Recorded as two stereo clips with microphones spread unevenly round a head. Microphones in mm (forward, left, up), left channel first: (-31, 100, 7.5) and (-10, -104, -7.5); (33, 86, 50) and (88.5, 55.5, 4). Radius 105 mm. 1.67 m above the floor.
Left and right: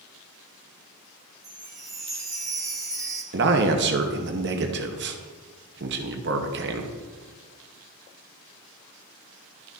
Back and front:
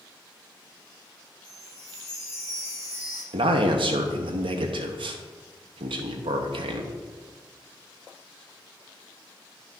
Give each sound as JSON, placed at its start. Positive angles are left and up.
{"t": 1.4, "sound": "a chime", "azimuth_deg": -150, "distance_m": 1.2}
{"t": 3.3, "sound": "a man speaking", "azimuth_deg": -45, "distance_m": 0.9}